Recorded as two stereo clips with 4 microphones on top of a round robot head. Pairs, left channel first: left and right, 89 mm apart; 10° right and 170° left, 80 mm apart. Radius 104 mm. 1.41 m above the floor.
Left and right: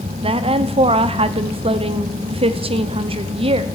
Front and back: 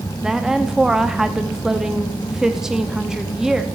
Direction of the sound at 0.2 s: 105° right.